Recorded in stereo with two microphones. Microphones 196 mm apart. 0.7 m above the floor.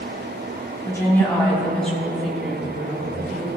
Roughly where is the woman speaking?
Centre.